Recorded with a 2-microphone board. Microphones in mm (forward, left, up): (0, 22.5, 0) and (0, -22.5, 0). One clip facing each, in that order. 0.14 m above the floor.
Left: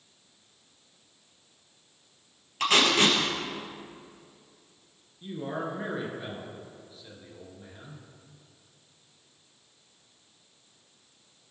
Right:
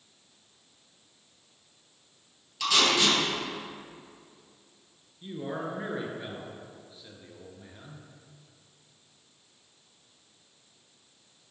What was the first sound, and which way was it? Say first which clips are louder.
Tape being pulled: left 2 dB; 45° left (ahead or behind).